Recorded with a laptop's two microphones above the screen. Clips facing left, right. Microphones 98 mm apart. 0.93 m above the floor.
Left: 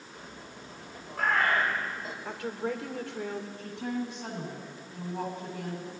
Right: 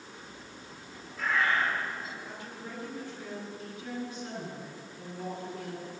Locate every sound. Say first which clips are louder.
0.1 s a bird: left 2 dB; 55° left (ahead or behind), 2.5 m
2.2 s a woman speaking: left 9 dB; 75° left (ahead or behind), 3 m
3.6 s a woman speaking: left 4 dB; 70° left (ahead or behind), 9 m